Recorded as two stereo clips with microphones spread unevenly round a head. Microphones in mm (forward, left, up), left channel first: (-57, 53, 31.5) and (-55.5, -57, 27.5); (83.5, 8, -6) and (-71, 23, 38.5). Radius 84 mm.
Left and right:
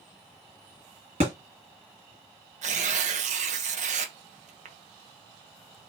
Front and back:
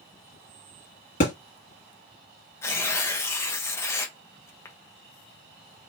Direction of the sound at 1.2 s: 55° right.